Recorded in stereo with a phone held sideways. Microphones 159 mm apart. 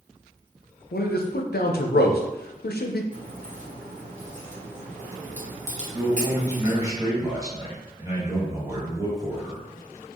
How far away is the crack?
About 1.3 m.